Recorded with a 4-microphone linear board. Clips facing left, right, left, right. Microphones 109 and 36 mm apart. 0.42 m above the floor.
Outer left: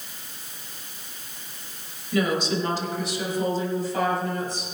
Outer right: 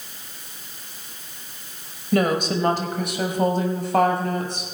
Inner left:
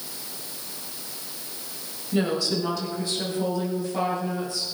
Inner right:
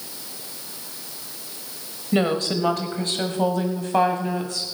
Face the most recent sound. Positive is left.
turn(degrees=-65)  # may be behind; listen again after turning